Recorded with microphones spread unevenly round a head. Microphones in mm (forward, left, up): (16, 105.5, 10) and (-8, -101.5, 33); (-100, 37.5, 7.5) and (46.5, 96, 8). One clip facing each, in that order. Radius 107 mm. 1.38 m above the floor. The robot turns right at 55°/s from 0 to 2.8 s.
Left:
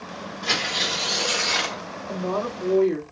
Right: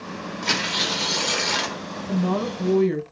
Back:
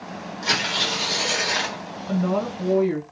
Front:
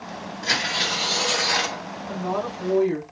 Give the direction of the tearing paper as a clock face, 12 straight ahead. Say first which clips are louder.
Right 1 dB, back 1 dB; 4 o'clock.